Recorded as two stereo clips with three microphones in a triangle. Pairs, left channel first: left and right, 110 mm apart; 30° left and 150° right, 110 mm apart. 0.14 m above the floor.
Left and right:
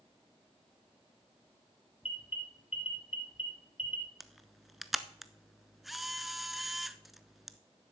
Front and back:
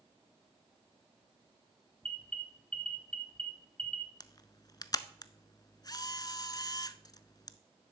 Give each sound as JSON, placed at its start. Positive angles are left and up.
{"t": 2.0, "sound": "an alarm", "azimuth_deg": 110, "distance_m": 2.5}
{"t": 4.2, "sound": "a camera shutter", "azimuth_deg": 0, "distance_m": 0.6}